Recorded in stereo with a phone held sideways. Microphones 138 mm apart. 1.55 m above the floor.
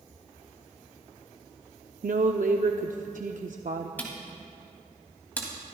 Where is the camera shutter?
10° left (ahead or behind), 2.5 m.